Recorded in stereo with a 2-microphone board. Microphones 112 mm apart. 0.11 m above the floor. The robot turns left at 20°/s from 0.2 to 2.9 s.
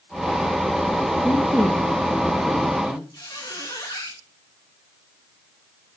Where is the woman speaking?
175° left, 2.5 m; by 3.0 s 145° left, 2.5 m.